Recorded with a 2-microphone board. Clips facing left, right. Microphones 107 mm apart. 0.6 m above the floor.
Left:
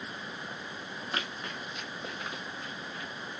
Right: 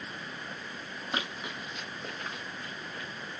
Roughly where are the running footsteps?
Right.